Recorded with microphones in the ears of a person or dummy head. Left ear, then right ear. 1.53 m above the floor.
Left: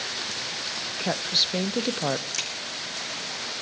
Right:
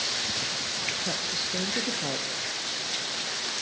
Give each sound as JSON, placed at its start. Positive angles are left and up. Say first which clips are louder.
{"t": 1.0, "sound": "a woman speaking", "louder": "left 5 dB", "side_deg": 55, "distance_m": 0.6}
{"t": 2.3, "sound": "a crack", "louder": "left 3 dB", "side_deg": 60, "distance_m": 1.6}